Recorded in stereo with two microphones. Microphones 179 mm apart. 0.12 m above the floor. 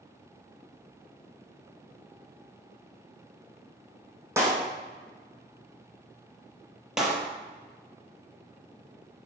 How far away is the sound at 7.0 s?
About 3 m.